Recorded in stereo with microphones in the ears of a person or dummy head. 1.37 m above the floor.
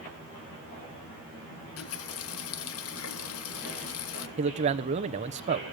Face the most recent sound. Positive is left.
turn(degrees=-35)  # may be behind; listen again after turning